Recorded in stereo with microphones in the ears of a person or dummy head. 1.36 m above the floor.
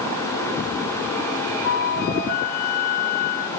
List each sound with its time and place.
1.6 s a flute: 55° left (ahead or behind)